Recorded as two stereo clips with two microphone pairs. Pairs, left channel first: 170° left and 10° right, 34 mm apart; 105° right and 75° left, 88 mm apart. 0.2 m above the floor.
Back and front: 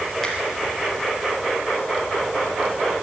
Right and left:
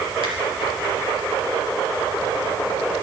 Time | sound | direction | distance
0.2 | a finger snap | 90° left | 4 m